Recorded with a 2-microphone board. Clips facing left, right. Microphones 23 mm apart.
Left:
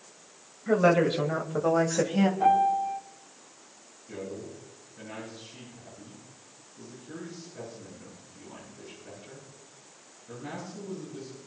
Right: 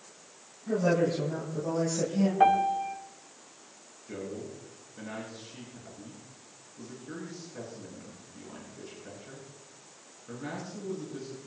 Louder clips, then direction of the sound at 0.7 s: Left 4 dB; 75° left (ahead or behind).